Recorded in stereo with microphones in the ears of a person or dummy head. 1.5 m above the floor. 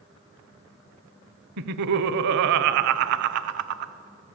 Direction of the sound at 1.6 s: 65° right (ahead or behind).